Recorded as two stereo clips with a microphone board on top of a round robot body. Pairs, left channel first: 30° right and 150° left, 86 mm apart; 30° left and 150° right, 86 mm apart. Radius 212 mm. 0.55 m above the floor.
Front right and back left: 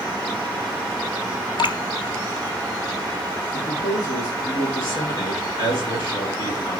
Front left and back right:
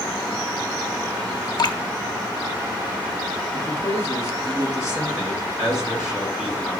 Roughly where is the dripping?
Ahead.